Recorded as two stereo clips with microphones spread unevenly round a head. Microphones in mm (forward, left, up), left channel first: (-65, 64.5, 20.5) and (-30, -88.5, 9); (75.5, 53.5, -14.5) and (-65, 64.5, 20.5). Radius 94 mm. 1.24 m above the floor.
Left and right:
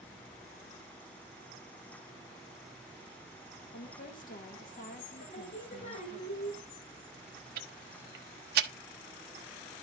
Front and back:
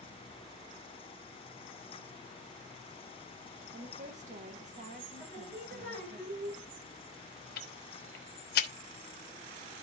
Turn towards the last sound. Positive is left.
turn(degrees=-40)